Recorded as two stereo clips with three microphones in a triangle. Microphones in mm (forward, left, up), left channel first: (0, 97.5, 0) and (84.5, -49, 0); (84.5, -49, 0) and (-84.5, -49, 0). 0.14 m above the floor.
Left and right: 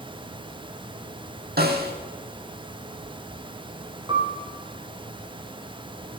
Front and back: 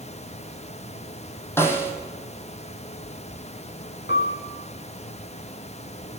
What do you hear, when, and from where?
1.6 s a snare drum: 75° right, 2.5 m
4.1 s a piano: straight ahead, 4 m